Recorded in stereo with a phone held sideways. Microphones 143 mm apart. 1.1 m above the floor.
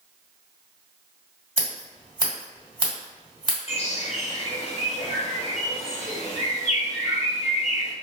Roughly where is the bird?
Left.